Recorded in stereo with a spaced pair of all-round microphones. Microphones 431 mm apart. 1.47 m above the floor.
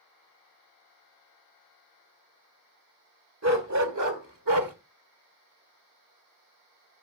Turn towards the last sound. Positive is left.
turn(degrees=-50)  # may be behind; listen again after turning